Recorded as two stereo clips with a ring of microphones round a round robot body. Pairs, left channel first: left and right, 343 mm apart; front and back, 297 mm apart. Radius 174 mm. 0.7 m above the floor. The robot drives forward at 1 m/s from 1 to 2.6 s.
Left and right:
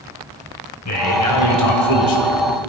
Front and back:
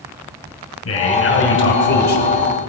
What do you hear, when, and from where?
0.8 s a man speaking: 45° left, 4 m; by 2.4 s 65° left, 3 m